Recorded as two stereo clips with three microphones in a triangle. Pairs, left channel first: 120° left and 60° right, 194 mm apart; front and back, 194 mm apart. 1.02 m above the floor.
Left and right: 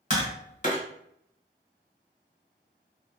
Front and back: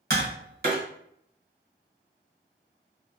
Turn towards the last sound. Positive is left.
turn(degrees=160)